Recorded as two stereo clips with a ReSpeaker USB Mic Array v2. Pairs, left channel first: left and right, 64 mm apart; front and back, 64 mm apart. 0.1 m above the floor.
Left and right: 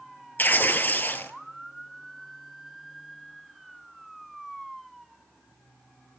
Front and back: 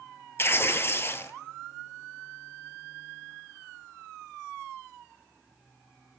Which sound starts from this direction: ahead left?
Tearing paper, at 0.4 s.